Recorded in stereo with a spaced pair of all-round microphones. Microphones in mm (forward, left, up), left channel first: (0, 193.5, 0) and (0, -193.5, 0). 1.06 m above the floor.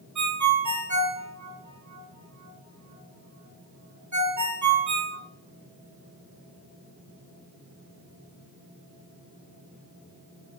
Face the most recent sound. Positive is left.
turn(degrees=-45)  # may be behind; listen again after turning